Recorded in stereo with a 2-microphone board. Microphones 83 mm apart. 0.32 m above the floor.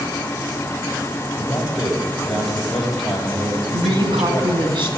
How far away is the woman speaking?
About 2.5 m.